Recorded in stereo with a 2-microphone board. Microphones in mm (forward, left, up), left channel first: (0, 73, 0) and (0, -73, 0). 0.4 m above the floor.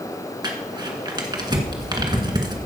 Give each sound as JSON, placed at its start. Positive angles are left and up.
{"t": 0.4, "sound": "crumpling", "side_deg": -30, "distance_m": 1.6}